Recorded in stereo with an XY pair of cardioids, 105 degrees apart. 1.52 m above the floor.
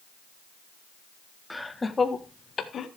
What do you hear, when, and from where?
1.5 s laughter: 5° left, 1.6 m; by 2.9 s 50° left, 1.8 m